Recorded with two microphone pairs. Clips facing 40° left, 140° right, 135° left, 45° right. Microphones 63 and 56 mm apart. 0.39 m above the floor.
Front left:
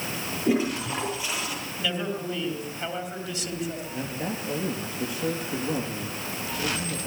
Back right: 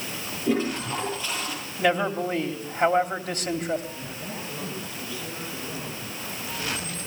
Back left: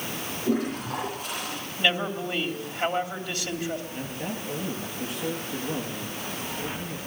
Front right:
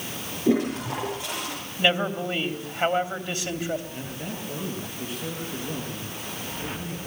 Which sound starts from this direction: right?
A man speaking, at 1.8 s.